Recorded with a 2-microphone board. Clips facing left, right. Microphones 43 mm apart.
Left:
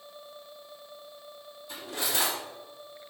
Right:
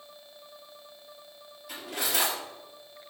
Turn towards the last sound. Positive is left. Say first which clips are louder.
# right 1 dB
turn(degrees=-75)  # may be behind; listen again after turning